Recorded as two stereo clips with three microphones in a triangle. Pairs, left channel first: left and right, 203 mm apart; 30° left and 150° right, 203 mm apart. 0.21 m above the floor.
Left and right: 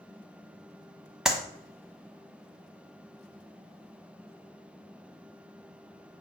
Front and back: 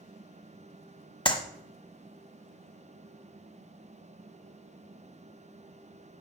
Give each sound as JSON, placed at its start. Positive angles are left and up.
{"t": 1.2, "sound": "a clap", "azimuth_deg": -5, "distance_m": 1.0}